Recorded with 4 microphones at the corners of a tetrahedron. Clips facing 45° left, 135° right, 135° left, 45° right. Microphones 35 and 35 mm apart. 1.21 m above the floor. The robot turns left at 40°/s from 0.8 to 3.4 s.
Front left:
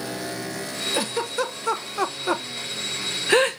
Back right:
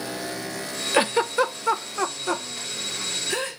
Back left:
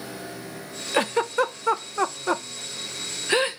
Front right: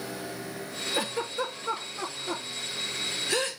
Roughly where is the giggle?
Behind.